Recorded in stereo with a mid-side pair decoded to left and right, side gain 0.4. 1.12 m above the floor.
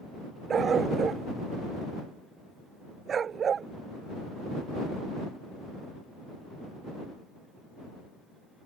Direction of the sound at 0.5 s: 50° right.